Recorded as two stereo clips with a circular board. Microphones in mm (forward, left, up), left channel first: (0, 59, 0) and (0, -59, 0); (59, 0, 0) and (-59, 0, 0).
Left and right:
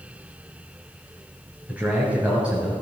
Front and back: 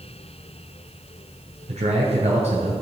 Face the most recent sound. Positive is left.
turn(degrees=-170)